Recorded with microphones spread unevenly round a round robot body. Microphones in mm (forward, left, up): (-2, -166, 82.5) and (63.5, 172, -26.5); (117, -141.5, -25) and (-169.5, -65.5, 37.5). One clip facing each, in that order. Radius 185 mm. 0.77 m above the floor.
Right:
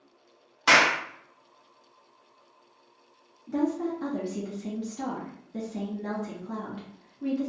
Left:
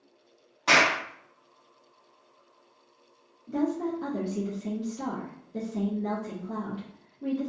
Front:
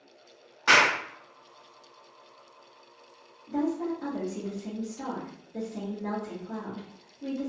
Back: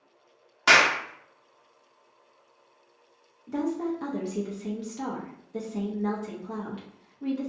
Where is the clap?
160° right, 1.0 m.